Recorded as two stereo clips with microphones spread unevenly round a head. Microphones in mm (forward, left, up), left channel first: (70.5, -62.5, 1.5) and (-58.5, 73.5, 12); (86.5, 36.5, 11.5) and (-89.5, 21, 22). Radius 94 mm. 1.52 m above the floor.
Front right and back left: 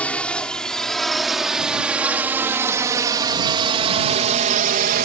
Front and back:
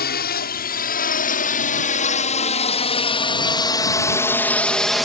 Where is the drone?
35° left; by 5.1 s 95° left.